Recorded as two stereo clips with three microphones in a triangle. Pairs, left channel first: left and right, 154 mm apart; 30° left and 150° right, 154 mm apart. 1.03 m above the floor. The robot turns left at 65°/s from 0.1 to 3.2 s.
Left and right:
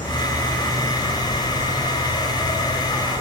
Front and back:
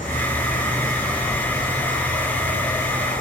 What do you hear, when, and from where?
0.0 s an insect: 40° left, 1.9 m; by 3.2 s 160° right, 1.9 m